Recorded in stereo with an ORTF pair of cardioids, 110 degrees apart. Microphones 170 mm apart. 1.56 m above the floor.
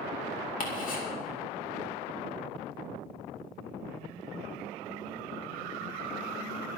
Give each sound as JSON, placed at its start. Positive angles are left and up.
{"t": 0.6, "sound": "ticking", "azimuth_deg": 50, "distance_m": 3.5}